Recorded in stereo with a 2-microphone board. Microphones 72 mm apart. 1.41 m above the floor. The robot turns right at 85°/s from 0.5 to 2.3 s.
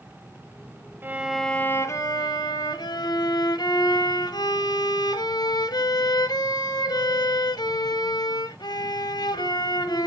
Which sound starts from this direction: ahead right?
A violin, at 1.0 s.